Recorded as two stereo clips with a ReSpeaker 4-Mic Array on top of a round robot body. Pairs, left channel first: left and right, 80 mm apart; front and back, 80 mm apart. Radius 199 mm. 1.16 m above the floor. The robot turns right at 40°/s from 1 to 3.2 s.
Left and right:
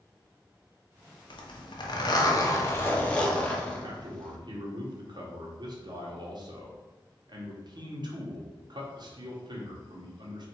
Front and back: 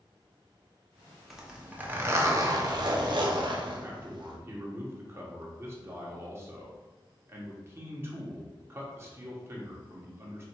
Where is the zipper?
90° left, 0.9 m; by 4.4 s 165° left, 0.9 m.